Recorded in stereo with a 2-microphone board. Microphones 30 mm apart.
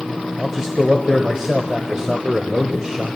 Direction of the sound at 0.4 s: 20° right (ahead or behind).